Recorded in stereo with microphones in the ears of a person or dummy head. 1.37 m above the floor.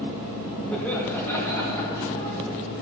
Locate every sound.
0.7 s laughter: 5° left (ahead or behind), 1.9 m; by 2.4 s 25° left (ahead or behind), 3 m